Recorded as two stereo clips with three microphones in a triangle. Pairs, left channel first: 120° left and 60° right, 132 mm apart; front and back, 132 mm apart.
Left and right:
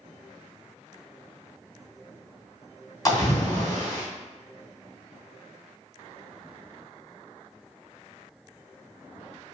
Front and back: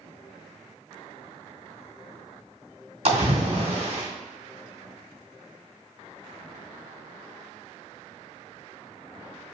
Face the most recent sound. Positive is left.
turn(degrees=175)